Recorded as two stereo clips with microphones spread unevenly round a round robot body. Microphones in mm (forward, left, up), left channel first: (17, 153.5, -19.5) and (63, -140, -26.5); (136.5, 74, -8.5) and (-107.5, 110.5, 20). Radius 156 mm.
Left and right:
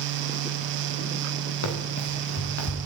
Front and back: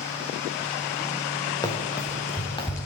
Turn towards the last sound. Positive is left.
turn(degrees=65)